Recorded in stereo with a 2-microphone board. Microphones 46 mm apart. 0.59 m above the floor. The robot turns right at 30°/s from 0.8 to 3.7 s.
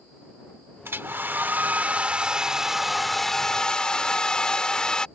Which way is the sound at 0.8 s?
65° right.